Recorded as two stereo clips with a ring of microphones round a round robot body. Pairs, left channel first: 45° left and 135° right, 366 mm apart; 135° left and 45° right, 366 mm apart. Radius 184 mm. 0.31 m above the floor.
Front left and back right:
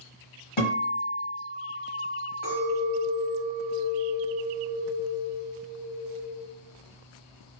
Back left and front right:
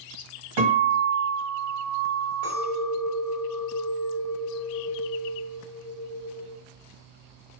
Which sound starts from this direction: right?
A clink, at 2.4 s.